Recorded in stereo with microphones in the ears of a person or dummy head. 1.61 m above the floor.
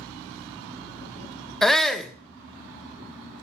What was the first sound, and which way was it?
A shout, 5° left (ahead or behind).